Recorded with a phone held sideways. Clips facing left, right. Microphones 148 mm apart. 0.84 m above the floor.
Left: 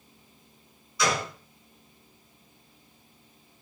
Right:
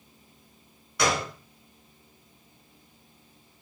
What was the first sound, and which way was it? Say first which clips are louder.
A gunshot: right 1 dB; 70° right (ahead or behind).